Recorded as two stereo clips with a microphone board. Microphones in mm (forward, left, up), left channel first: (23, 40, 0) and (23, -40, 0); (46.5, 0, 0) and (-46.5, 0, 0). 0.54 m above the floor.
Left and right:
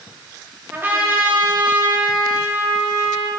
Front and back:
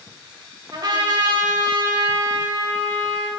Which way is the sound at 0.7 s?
150° right.